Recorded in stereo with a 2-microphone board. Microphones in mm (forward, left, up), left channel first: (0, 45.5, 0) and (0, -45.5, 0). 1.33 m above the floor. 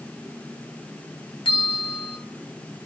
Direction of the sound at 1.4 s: 65° left (ahead or behind).